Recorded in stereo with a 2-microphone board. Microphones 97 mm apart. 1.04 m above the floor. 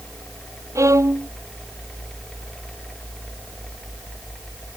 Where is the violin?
30° right (ahead or behind).